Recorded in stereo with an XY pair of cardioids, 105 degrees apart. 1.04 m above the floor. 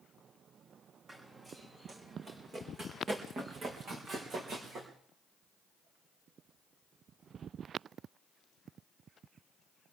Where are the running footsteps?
35° right, 4.5 m; by 4.9 s 60° right, 5.5 m.